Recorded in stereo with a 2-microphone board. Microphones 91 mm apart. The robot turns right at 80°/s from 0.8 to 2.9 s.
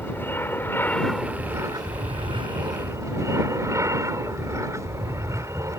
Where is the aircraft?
155° left; by 5.8 s 35° right.